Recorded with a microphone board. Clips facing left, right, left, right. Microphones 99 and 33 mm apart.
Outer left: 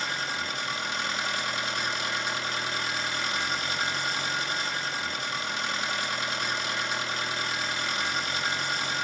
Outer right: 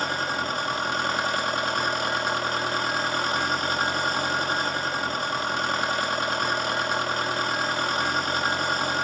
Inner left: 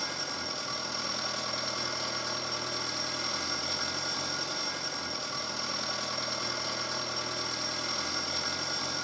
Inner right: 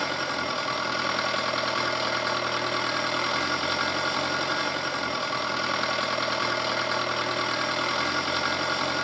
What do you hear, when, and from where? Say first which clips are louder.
0.0 s an engine running: outer right 6 dB, inner right 9 dB; 45° right (ahead or behind), 1.0 m